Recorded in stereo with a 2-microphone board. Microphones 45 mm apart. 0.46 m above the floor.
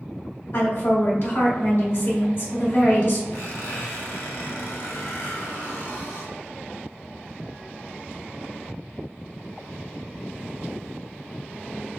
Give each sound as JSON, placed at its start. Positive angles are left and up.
{"t": 0.5, "sound": "a woman speaking", "side_deg": 60, "distance_m": 2.0}
{"t": 3.3, "sound": "a squeak", "side_deg": 65, "distance_m": 1.7}